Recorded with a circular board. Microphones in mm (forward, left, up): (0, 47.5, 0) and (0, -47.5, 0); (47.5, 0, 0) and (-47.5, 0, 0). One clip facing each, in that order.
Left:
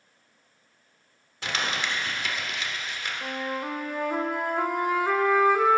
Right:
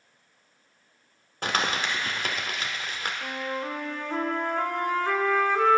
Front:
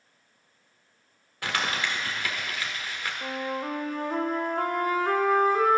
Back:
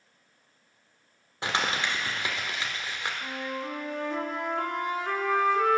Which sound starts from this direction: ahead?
A flute, at 3.2 s.